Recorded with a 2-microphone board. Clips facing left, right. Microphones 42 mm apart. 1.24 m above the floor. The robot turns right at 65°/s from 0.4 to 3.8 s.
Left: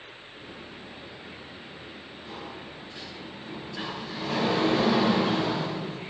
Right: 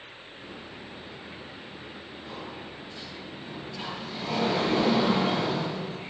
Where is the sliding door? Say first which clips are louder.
Even; straight ahead, 5.5 m; by 6.1 s 100° left, 5.5 m.